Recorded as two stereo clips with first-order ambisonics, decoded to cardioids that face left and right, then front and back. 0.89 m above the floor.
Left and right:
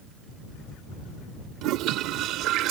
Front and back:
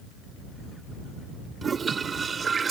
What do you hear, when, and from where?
1.6 s a toilet flushing: 110° right